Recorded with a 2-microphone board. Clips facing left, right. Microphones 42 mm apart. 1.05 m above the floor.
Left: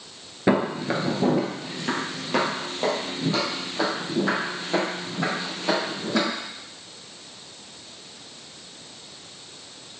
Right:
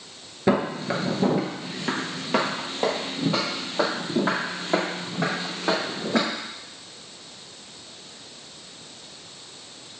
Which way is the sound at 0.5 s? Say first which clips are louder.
Left 1 dB; 10° left (ahead or behind).